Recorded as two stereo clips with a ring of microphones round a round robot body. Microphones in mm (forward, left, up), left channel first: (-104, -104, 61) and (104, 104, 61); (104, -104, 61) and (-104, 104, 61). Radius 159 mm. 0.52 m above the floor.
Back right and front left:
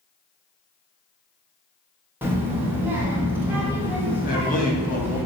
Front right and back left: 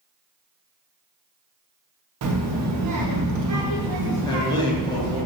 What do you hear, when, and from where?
2.2 s a child speaking: 125° left, 0.6 m
4.2 s a man speaking: 110° right, 0.7 m